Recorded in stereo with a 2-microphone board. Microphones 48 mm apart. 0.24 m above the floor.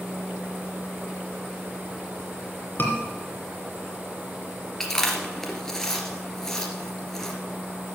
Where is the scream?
45° left (ahead or behind), 2.5 m.